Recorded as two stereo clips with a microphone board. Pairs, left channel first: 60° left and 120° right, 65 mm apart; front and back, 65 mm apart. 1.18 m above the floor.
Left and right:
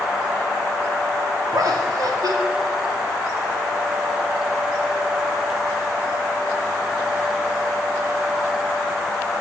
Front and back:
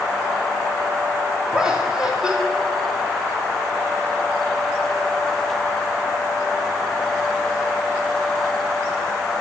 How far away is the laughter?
About 3.5 m.